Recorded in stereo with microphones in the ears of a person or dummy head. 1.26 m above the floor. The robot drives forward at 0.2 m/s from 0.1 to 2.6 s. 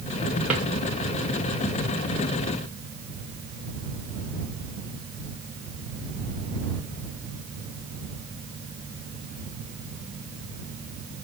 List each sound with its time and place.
0.5 s a drawer: 10° right (ahead or behind), 0.9 m